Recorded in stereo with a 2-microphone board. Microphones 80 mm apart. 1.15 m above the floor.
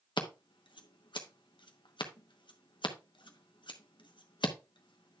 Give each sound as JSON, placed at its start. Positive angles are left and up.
{"t": 0.2, "sound": "scissors", "side_deg": 80, "distance_m": 1.0}